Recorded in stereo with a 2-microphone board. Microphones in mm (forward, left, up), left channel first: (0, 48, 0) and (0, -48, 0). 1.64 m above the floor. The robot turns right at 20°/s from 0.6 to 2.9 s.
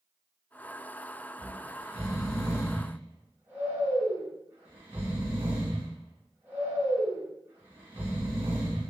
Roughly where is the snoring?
Right.